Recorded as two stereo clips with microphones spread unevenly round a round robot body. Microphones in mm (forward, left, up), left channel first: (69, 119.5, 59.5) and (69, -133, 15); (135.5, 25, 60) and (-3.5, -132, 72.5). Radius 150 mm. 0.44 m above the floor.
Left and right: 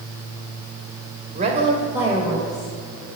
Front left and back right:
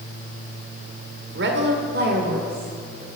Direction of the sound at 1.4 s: 140° right.